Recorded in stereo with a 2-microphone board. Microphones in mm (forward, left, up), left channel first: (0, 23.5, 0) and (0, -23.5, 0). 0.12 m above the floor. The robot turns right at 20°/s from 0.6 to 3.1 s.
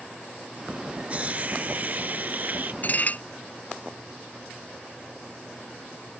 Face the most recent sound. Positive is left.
turn(degrees=40)  # may be behind; listen again after turning